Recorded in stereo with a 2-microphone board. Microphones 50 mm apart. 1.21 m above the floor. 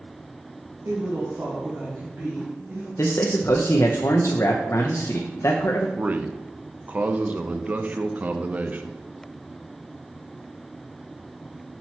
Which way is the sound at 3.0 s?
65° left (ahead or behind).